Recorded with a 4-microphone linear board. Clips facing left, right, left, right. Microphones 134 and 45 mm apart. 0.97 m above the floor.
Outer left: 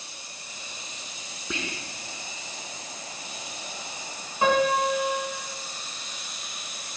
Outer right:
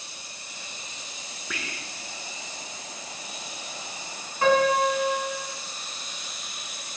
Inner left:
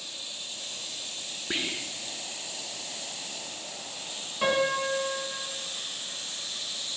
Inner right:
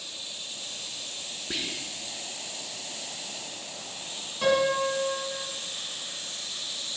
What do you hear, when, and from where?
1.5 s whispering: 25° left (ahead or behind), 0.5 m
4.4 s a piano: 20° left (ahead or behind), 1.4 m